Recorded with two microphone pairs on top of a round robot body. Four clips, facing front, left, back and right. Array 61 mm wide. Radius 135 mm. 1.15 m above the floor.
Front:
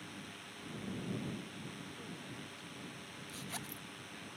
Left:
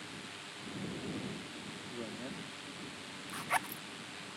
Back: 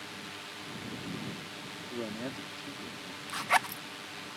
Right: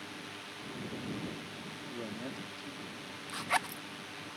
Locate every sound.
0.0 s a drone: 165° right
1.9 s a man speaking: 175° left
3.3 s a zipper: straight behind